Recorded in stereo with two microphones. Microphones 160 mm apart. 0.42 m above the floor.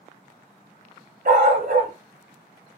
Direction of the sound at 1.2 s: 65° right (ahead or behind).